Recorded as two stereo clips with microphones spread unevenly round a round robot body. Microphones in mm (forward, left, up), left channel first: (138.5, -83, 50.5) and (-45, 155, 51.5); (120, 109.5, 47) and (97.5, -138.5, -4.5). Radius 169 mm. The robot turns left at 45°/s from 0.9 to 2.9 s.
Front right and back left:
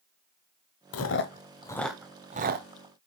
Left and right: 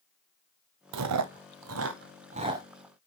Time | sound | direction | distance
0.9 | chewing | 100° right | 0.9 m